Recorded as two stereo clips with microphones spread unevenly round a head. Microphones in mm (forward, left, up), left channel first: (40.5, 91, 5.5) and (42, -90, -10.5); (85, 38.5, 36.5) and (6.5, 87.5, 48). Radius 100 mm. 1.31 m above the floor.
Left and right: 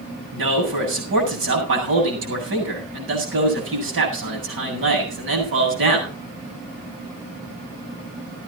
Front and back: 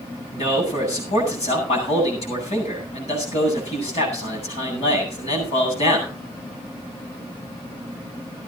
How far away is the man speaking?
About 7.5 m.